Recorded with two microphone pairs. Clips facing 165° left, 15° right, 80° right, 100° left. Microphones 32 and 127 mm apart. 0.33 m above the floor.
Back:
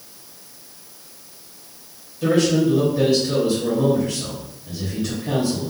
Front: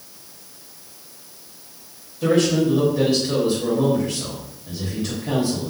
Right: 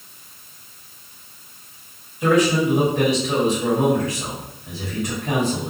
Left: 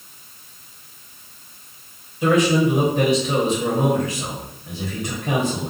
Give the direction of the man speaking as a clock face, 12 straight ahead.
10 o'clock.